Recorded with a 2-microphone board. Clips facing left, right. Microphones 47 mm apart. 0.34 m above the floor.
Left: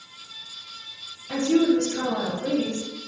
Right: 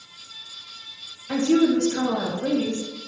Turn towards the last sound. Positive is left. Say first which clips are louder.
# right 1 dB
turn(degrees=-55)  # may be behind; listen again after turning